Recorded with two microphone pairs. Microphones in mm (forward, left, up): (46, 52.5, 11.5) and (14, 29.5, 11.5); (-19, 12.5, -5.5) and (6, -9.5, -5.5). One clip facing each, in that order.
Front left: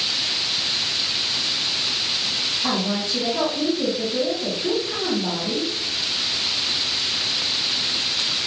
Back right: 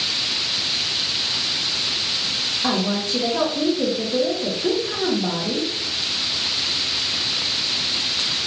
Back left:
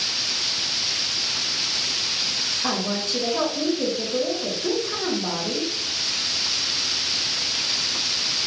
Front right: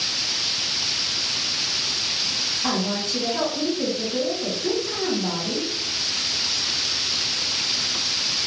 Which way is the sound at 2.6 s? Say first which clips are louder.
Back right 3 dB, front right 2 dB; 145° right.